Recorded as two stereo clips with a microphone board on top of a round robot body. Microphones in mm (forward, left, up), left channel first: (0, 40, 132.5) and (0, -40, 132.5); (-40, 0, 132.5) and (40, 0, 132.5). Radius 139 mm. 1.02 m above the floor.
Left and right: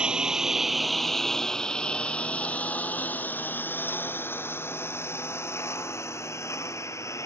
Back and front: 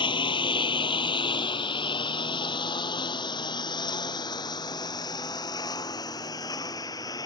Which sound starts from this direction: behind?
A lawn mower, at 0.0 s.